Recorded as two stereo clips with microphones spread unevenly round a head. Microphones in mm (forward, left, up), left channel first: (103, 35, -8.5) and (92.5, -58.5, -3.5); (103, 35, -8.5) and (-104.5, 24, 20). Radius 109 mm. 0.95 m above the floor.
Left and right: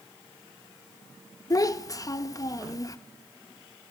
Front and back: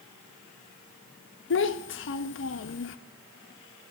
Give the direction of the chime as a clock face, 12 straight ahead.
No chime in this recording.